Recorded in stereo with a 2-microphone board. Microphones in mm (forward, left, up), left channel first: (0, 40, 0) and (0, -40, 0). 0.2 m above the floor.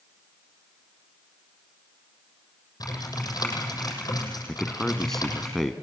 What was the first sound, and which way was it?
Typing on a keyboard, 55° left (ahead or behind).